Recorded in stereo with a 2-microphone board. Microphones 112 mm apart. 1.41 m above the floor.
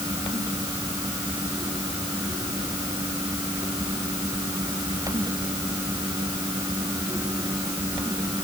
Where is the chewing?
I don't hear chewing.